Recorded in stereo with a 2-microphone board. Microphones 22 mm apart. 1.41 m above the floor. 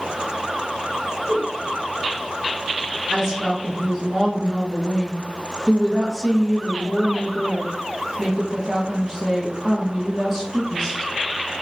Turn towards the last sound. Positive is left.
turn(degrees=0)  # may be behind; listen again after turning